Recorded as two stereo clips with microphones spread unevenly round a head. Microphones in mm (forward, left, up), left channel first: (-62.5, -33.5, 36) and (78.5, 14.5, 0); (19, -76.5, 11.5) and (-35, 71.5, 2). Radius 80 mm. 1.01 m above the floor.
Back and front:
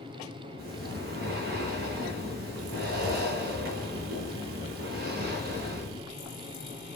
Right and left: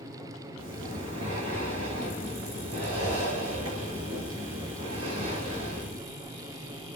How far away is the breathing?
About 5.5 m.